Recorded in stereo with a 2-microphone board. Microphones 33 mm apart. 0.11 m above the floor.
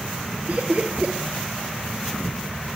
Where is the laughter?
45° right (ahead or behind), 2 m.